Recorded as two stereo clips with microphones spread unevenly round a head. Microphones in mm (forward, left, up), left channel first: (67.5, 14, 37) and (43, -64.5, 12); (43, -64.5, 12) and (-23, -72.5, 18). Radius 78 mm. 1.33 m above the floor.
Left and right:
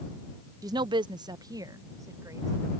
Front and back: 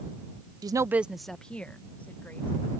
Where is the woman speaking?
150° right; by 2.5 s 55° right.